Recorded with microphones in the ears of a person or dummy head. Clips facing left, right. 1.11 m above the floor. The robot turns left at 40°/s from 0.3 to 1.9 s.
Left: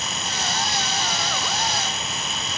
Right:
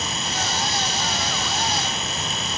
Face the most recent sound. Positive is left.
No sound to turn to.